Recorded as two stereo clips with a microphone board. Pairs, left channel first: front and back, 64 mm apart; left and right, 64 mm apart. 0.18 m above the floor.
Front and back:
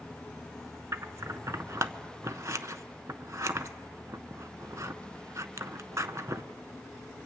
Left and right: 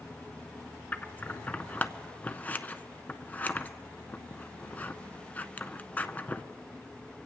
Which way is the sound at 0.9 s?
150° left.